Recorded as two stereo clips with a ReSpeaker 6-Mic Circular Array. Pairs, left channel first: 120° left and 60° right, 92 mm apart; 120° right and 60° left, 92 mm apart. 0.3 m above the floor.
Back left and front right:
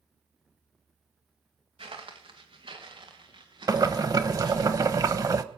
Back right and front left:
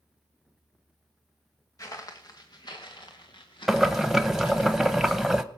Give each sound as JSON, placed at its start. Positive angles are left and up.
{"t": 1.8, "sound": "footsteps", "azimuth_deg": -65, "distance_m": 1.8}
{"t": 3.7, "sound": "boiling", "azimuth_deg": -25, "distance_m": 0.7}